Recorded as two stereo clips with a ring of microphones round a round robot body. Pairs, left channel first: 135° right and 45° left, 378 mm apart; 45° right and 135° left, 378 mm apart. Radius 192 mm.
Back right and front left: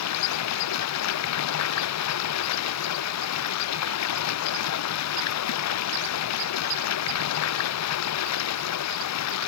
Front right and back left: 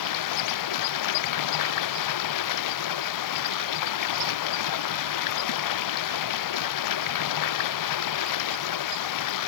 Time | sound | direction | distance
0.0 | running water | 85° right | ?